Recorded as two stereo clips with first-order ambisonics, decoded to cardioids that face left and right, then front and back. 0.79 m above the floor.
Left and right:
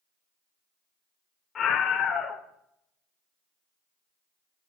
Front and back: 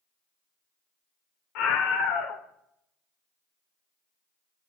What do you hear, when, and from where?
1.6 s a scream: 25° left, 2.5 m